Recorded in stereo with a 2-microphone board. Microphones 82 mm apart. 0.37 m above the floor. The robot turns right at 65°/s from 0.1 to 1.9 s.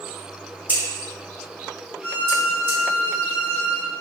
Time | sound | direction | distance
0.7 | scissors | 25° right (ahead or behind) | 1.1 m
2.0 | a violin | 15° left (ahead or behind) | 1.8 m